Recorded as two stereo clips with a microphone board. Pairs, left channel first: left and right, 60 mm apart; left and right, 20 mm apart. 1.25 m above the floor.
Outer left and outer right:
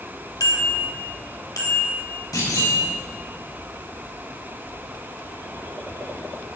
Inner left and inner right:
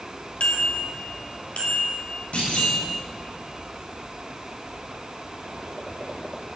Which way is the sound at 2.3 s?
85° left.